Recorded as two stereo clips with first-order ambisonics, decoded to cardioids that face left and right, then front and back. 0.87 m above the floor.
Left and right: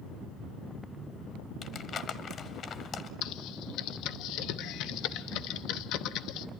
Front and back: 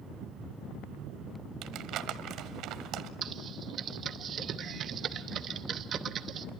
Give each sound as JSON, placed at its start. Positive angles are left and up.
{"t": 1.6, "sound": "crumpling", "azimuth_deg": 145, "distance_m": 1.0}
{"t": 3.2, "sound": "typing on a keyboard", "azimuth_deg": 120, "distance_m": 0.8}